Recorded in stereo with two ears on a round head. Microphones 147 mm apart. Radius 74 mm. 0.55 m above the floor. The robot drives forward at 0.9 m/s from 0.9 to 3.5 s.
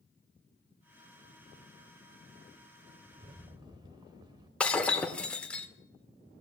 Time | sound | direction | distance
3.1 | a rattle | 40° right (ahead or behind) | 0.7 m
4.6 | breaking glass | 5° left (ahead or behind) | 1.0 m